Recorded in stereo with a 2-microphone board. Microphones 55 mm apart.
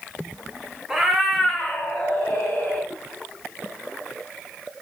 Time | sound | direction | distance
0.9 | a cat meowing | 15° right (ahead or behind) | 0.7 m